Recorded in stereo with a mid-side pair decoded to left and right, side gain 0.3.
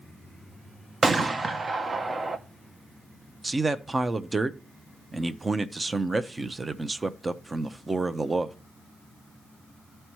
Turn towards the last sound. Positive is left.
turn(degrees=-30)